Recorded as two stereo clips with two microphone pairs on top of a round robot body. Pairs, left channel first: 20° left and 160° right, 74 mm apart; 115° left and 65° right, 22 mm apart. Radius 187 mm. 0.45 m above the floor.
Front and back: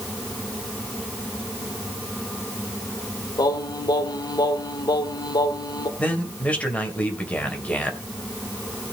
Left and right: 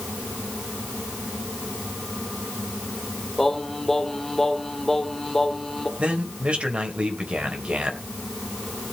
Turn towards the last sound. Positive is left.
turn(degrees=-50)